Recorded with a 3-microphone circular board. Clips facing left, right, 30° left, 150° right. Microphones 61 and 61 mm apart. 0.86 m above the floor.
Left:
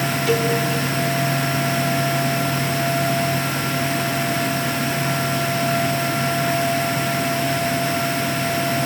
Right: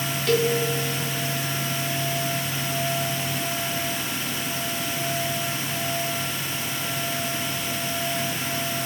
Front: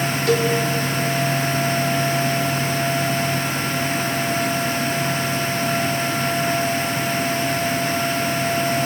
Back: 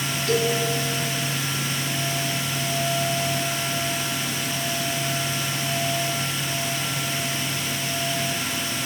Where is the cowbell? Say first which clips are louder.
Left 1 dB, front 3 dB; 5° left, 2.5 m.